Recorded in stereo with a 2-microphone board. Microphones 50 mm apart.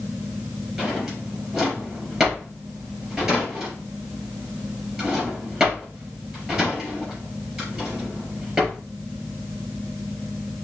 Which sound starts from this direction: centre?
A drawer, at 0.8 s.